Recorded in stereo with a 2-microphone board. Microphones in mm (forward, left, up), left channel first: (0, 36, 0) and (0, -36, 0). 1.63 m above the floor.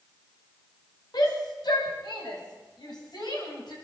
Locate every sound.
1.1 s a shout: 60° left (ahead or behind), 6.5 m; by 3.7 s 65° left (ahead or behind), 9 m